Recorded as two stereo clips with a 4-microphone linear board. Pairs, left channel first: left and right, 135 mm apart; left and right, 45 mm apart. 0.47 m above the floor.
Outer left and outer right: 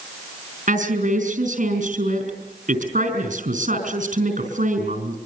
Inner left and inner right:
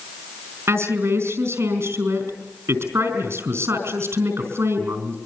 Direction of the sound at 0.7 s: 75° right (ahead or behind).